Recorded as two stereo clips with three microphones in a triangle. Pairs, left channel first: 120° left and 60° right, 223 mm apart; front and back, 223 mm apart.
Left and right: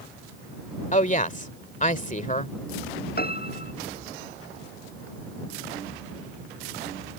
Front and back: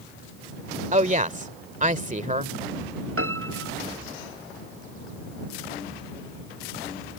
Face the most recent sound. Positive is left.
turn(degrees=165)